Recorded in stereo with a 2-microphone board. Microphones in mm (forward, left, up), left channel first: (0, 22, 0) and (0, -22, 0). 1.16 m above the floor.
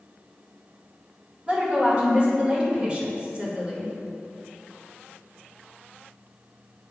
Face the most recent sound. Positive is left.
turn(degrees=-20)  # may be behind; listen again after turning